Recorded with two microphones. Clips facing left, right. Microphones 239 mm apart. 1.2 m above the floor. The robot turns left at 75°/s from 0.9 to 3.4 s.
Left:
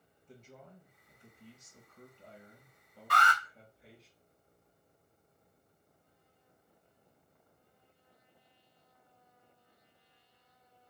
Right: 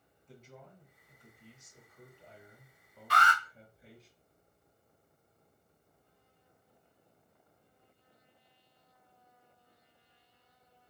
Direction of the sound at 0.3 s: 170° right.